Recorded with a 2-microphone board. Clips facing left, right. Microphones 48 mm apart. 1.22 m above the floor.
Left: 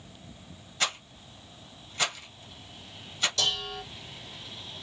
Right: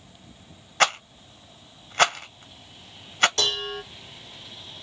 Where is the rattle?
60° right (ahead or behind), 0.6 m.